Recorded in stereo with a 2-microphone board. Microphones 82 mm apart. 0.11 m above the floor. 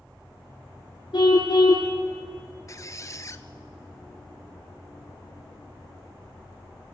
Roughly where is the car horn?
Left.